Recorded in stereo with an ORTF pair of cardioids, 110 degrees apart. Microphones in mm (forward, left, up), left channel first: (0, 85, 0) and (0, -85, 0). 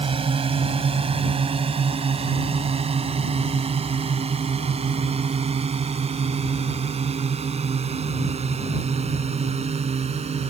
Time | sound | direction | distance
0.0 | a drone | 35° right | ?